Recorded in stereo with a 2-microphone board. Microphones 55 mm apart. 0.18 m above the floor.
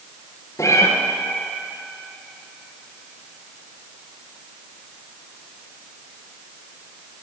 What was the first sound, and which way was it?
A cat meowing, 70° left (ahead or behind).